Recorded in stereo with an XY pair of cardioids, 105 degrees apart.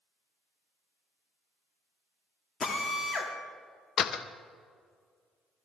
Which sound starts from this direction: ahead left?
A drill, at 2.6 s.